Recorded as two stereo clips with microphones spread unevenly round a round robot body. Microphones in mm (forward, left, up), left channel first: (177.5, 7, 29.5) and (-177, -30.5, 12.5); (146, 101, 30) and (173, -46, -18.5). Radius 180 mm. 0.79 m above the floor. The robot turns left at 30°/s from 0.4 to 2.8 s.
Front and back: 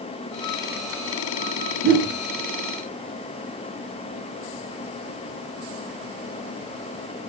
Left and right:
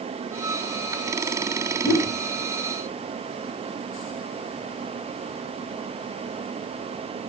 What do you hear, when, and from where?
1.8 s a whoosh: 170° right, 1.1 m; by 2.1 s straight behind, 1.1 m